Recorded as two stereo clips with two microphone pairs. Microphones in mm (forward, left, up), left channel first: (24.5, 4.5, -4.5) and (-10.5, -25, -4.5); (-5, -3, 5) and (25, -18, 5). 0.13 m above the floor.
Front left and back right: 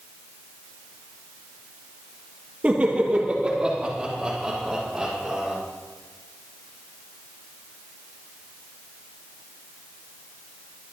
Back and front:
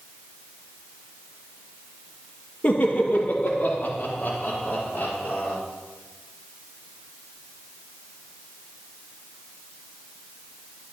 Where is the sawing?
No sawing in this recording.